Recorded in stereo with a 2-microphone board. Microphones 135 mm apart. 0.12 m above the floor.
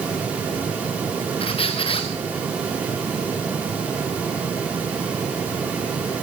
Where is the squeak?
45° left (ahead or behind), 4 m.